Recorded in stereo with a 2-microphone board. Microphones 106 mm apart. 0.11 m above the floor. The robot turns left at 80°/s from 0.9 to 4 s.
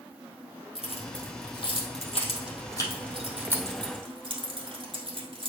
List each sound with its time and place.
0.8 s keys jangling: 5° right (ahead or behind), 2 m; by 5.5 s 55° right (ahead or behind), 2 m